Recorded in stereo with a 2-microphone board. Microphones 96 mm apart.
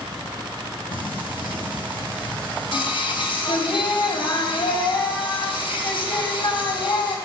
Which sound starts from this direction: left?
Singing, at 0.9 s.